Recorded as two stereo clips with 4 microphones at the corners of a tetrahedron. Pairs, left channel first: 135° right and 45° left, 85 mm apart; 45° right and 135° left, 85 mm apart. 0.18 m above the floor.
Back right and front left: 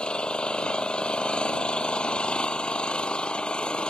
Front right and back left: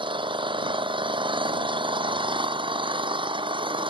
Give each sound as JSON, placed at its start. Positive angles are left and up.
{"t": 0.0, "sound": "an engine running", "azimuth_deg": 145}